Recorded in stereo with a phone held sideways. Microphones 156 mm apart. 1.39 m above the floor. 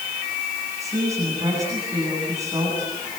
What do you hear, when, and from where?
0.8 s a woman speaking: 20° right (ahead or behind), 9 m